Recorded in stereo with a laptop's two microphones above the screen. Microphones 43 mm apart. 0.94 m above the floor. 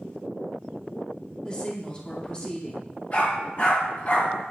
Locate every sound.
1.4 s a woman speaking: 25° left (ahead or behind), 2 m
3.1 s a dog barking: 45° left (ahead or behind), 2.5 m